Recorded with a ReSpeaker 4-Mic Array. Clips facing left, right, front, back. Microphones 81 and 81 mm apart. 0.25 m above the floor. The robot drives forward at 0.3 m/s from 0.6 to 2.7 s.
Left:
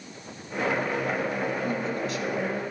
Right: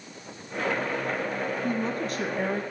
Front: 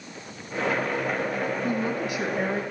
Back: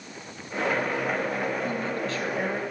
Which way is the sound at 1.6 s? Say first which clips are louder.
Even, front 2 dB; 65° right.